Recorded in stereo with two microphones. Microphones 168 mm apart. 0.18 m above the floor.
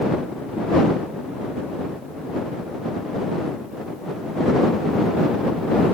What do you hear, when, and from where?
Only background noise.